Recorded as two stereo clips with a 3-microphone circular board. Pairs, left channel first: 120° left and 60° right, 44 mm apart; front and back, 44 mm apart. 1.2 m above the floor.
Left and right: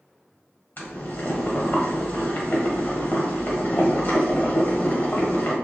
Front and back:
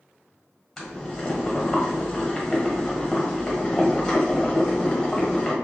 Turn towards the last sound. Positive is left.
turn(degrees=85)